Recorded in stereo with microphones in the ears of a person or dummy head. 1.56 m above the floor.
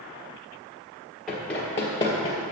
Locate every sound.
1.3 s running footsteps: 5° left (ahead or behind), 1.6 m; by 2.4 s 25° left (ahead or behind), 1.8 m